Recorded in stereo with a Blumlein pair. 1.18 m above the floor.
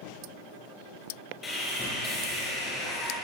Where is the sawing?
20° left, 6 m.